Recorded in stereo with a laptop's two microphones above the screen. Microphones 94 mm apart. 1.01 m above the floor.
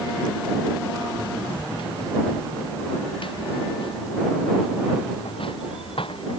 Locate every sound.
1.1 s running footsteps: 65° left (ahead or behind); by 6.4 s 80° left